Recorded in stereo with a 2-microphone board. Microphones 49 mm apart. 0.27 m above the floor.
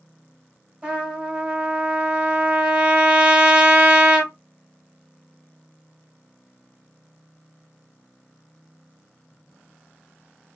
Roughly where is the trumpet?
Right.